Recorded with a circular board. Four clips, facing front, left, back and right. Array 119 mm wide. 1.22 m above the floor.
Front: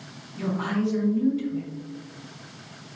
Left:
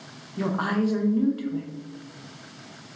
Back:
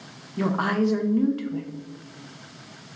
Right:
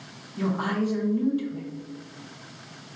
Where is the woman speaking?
160° left, 0.6 m.